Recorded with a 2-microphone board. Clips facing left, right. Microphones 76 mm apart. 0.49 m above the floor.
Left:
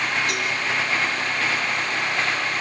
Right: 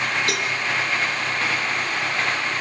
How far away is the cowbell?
About 3.5 m.